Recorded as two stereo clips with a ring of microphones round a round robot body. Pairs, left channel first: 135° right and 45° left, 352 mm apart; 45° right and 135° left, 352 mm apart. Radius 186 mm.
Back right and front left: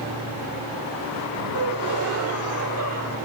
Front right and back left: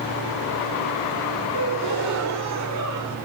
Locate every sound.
1.5 s a gasp: 95° left, 1.1 m